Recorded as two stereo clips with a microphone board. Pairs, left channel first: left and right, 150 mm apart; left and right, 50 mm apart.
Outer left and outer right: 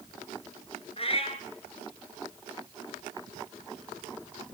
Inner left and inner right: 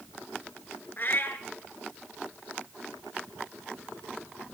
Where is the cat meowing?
40° left (ahead or behind), 1.5 m.